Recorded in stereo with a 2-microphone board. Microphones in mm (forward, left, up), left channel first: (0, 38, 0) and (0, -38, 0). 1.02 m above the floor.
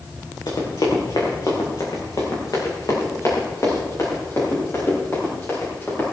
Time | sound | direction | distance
0.5 | running footsteps | 70° left (ahead or behind) | 4.5 m